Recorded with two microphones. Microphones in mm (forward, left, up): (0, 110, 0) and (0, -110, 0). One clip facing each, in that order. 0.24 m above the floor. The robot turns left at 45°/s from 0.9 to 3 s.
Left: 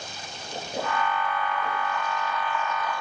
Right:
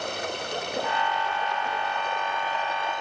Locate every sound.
0.0 s running water: 65° right; by 3.0 s 160° right